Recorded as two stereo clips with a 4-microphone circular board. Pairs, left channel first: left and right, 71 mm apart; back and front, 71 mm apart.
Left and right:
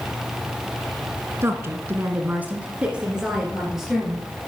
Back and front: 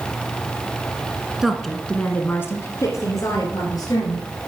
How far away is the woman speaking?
About 1.4 m.